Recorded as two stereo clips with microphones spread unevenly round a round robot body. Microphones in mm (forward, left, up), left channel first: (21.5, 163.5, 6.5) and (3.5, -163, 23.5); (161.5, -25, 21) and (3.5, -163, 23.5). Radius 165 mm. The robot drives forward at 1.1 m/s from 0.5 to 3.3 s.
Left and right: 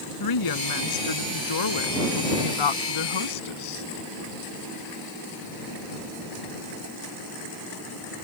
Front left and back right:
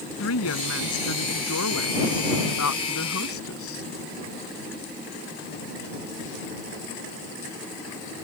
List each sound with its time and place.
0.2 s a woman speaking: 60° left; by 3.9 s 85° left